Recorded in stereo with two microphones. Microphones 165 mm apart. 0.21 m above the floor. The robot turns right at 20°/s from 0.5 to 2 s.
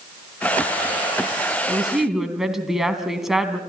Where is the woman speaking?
5° right (ahead or behind), 2 m; by 3.6 s centre (ahead or behind), 2 m.